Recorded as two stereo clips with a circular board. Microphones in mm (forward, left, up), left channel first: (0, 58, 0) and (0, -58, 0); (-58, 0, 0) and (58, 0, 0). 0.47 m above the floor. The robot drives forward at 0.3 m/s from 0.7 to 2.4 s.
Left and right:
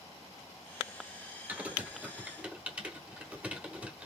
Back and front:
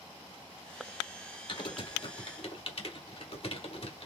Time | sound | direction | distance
1.5 | typing on a keyboard | 160° right | 1.1 m